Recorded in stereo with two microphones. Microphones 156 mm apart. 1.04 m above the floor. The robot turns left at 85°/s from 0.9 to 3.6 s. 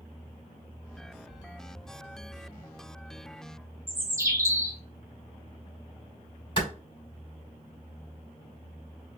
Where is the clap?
30° left (ahead or behind), 2.5 m.